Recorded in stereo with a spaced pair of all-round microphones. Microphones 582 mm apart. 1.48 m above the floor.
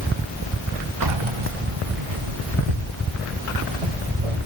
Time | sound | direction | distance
1.0 | keys jangling | 40° right (ahead or behind) | 0.6 m